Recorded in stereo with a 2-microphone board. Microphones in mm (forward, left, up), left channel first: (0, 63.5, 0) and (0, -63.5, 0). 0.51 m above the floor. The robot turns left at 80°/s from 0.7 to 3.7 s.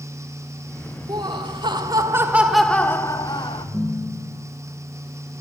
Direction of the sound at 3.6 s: 25° right (ahead or behind).